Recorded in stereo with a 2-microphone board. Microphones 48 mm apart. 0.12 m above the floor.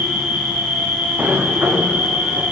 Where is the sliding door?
35° right (ahead or behind), 3.5 m.